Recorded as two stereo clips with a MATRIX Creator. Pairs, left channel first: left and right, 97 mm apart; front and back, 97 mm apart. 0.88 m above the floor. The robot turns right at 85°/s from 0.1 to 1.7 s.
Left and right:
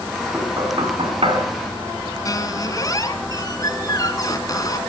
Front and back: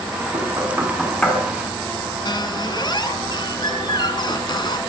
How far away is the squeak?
About 2 m.